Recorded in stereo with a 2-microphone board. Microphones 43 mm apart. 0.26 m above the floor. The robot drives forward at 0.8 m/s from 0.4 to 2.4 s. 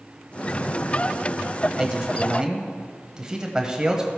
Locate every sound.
1.8 s a man speaking: 15° right (ahead or behind), 0.9 m